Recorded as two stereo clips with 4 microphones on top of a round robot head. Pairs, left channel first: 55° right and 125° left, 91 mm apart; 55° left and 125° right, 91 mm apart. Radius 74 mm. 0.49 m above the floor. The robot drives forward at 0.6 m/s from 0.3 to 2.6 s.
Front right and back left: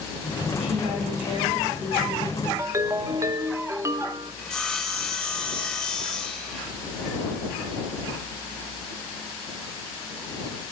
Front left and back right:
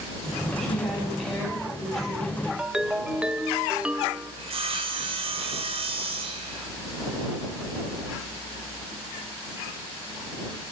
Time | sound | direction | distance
0.6 | a woman speaking | 140° left | 4 m
2.6 | a ringtone | 160° left | 0.5 m
4.4 | sawing | 140° right | 0.9 m